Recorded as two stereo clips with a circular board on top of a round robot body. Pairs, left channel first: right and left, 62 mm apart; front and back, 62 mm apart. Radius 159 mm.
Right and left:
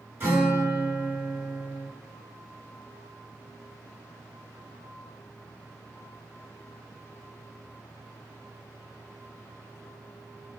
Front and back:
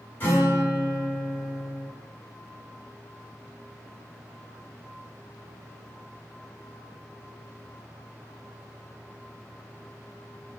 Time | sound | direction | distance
0.2 | a guitar | 45° left | 1.7 m